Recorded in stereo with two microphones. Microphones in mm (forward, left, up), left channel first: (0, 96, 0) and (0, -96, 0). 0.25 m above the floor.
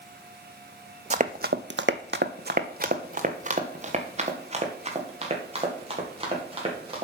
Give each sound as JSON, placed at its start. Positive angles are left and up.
{"t": 1.1, "sound": "running footsteps", "side_deg": -35, "distance_m": 0.6}